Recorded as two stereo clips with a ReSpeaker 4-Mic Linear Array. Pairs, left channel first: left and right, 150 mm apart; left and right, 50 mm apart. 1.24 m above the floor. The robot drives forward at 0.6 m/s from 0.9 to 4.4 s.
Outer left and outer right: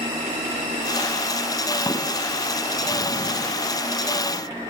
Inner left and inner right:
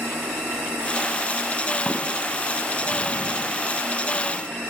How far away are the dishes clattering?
About 6 m.